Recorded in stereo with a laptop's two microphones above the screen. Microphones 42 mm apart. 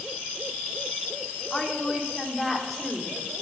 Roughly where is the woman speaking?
Centre.